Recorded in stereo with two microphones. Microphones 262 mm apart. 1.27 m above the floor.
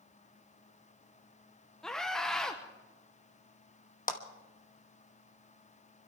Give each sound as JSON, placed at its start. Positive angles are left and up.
{"t": 1.8, "sound": "a scream", "side_deg": 0, "distance_m": 0.9}
{"t": 4.1, "sound": "a clap", "side_deg": 30, "distance_m": 1.2}